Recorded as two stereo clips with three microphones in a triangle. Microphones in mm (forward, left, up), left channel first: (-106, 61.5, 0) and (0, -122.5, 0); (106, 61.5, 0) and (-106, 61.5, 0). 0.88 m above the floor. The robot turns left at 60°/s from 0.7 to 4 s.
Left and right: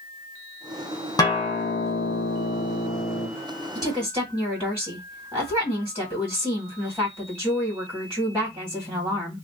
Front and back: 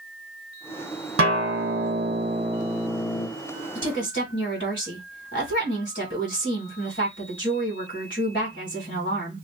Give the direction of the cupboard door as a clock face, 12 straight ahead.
I don't hear a cupboard door.